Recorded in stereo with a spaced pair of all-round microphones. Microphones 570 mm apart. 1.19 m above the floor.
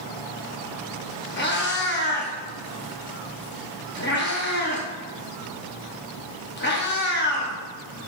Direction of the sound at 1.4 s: 20° left (ahead or behind).